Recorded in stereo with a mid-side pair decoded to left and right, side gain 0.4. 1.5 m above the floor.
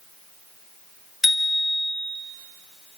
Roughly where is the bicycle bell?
Ahead.